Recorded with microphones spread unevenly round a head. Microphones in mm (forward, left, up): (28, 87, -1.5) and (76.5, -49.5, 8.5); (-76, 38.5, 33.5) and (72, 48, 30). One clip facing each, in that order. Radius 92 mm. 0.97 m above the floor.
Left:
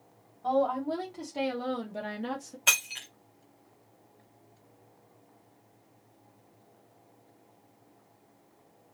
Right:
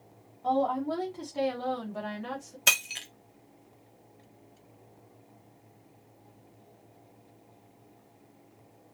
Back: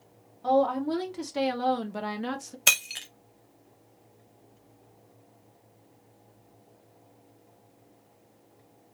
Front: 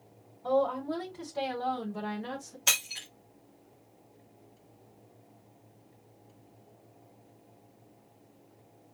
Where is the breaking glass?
130° right, 1.0 m.